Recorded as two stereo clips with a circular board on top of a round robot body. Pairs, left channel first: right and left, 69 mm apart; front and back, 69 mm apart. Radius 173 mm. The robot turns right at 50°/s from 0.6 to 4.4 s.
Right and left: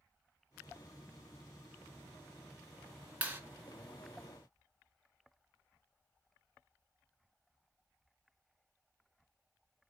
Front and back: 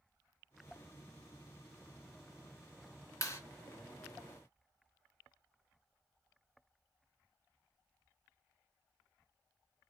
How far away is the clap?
About 1.7 m.